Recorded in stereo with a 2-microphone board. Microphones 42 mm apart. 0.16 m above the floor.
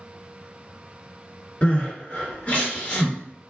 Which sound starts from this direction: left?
Crying, at 1.6 s.